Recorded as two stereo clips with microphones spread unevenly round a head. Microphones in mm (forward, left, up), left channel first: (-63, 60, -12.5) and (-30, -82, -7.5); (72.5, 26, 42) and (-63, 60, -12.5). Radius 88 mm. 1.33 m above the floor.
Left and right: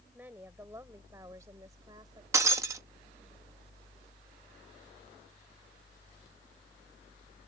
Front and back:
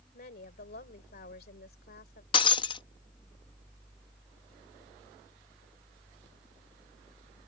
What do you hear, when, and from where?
0.1 s a woman speaking: 5° left; by 2.2 s 10° right
2.3 s breaking glass: 10° right